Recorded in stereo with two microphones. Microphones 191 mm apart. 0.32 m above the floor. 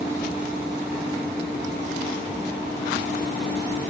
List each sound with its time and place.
Only background noise.